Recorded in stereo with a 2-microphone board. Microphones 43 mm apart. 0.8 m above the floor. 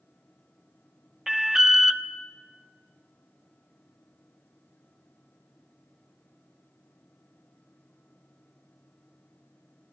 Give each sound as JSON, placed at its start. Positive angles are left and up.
{"t": 1.3, "sound": "an alarm", "side_deg": -10, "distance_m": 0.9}